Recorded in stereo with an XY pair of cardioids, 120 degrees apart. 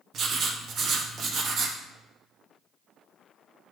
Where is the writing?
50° right, 1.2 m.